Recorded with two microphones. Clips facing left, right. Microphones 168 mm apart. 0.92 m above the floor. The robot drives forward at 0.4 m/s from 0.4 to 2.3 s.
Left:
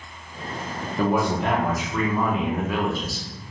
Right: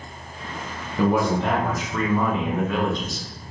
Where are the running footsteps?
No running footsteps in this recording.